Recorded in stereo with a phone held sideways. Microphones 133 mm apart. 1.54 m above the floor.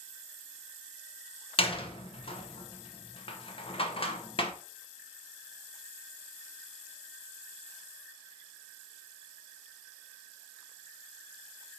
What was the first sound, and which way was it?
A door slam, 45° left (ahead or behind).